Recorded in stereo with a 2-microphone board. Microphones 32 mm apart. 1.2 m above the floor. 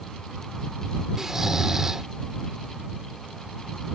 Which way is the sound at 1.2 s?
15° right (ahead or behind).